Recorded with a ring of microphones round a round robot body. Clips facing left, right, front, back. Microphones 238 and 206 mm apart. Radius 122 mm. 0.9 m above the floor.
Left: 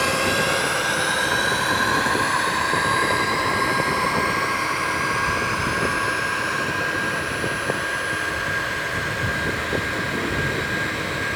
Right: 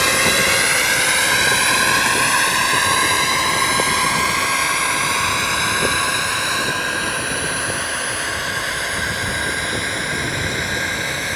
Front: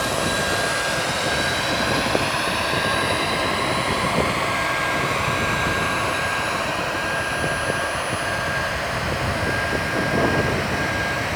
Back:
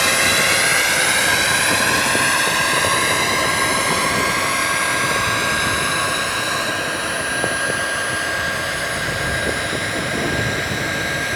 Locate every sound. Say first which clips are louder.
0.0 s a drone: right 2 dB, back 1 dB; 150° right; by 11.4 s 120° right